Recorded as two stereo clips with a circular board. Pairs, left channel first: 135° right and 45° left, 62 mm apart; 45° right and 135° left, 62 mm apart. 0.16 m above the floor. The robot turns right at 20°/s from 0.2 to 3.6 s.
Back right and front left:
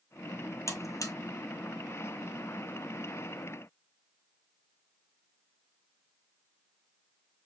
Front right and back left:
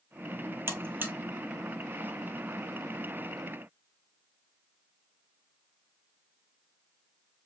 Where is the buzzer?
175° right, 1.5 m; by 1.1 s 165° right, 1.5 m.